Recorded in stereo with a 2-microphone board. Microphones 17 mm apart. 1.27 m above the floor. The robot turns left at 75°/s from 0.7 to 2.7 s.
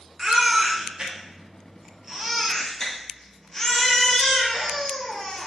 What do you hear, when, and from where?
0.2 s a baby crying: 55° right, 0.8 m; by 5.5 s 155° left, 0.8 m